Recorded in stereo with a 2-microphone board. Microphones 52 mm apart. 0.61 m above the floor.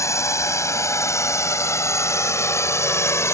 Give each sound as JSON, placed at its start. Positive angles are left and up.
{"t": 0.0, "sound": "a drone", "side_deg": 70}